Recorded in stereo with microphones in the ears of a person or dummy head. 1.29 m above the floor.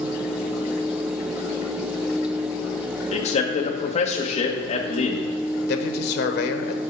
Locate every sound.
3.1 s a man speaking: 40° left (ahead or behind), 1.1 m
5.7 s a man speaking: 55° left (ahead or behind), 0.9 m